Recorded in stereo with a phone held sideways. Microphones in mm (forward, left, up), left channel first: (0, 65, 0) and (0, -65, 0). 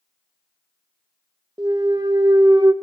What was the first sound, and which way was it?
A clunk, 30° right (ahead or behind).